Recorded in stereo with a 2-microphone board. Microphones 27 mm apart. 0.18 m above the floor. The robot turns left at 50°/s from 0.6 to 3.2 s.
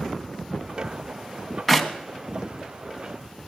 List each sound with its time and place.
1.7 s a clap: 5° right (ahead or behind), 1.2 m; by 1.9 s centre (ahead or behind), 1.2 m